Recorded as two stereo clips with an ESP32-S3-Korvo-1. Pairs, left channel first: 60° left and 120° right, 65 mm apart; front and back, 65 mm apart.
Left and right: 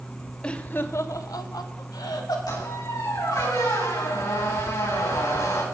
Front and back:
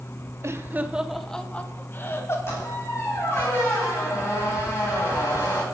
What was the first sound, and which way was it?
Laughter, 135° left.